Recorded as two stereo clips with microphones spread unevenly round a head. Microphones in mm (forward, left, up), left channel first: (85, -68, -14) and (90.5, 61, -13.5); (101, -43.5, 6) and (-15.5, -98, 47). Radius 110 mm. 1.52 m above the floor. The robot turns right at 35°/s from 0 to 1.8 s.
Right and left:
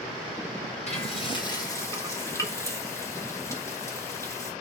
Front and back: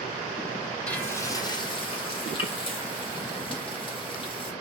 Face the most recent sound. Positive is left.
turn(degrees=-25)